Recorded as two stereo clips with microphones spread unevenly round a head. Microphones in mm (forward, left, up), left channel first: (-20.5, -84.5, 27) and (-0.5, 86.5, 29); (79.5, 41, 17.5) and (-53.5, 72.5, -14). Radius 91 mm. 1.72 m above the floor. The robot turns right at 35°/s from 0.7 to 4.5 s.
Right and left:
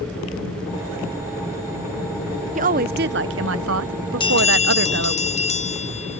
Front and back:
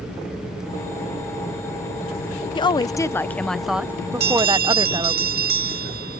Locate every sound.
2.5 s a woman speaking: 35° left; by 5.2 s 100° left
4.2 s a bell: 160° right; by 6.2 s 150° right